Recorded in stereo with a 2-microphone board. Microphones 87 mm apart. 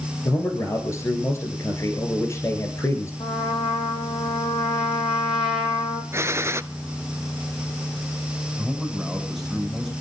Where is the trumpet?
70° left (ahead or behind), 4 m.